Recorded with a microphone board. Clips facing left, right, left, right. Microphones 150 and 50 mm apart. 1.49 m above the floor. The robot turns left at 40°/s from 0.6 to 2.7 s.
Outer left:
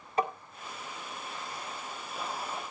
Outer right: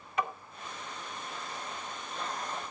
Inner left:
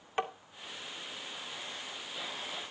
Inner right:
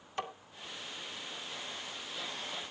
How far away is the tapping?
About 1.9 m.